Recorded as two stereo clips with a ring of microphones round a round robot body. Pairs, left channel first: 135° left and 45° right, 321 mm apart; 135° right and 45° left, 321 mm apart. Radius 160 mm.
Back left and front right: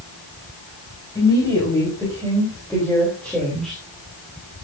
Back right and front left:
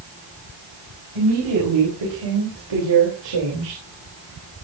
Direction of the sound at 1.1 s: 60° left.